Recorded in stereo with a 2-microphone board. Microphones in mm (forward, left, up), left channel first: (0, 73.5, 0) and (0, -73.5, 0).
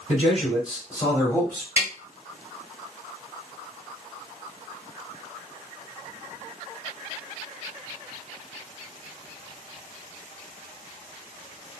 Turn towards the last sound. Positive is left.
turn(degrees=-15)  # may be behind; listen again after turning